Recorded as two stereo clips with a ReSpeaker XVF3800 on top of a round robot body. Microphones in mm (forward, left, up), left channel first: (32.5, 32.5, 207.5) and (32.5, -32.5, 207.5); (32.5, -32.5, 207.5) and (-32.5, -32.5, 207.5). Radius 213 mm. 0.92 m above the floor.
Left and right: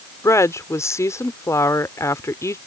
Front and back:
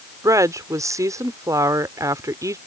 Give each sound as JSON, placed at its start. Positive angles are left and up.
{"t": 0.2, "sound": "a woman speaking", "azimuth_deg": 135}